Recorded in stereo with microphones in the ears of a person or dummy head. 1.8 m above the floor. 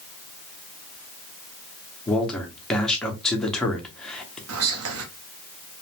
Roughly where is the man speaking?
Centre.